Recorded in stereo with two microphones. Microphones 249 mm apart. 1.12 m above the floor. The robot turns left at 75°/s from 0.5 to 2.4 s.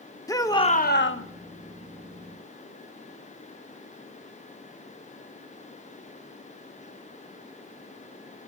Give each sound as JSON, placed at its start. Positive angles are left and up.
{"t": 0.3, "sound": "a shout", "azimuth_deg": 165, "distance_m": 1.1}